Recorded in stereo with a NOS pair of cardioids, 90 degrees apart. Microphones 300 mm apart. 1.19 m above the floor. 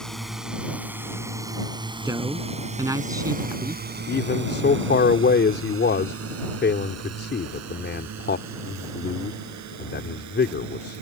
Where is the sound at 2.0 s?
10° right.